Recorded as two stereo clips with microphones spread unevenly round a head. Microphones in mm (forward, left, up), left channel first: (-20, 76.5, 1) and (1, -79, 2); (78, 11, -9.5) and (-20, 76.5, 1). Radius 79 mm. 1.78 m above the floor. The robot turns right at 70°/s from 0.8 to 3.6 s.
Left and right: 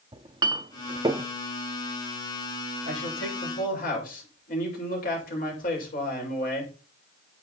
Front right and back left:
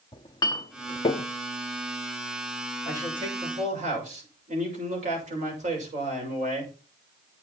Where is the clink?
55° right, 0.7 m; by 1.3 s 25° right, 0.7 m.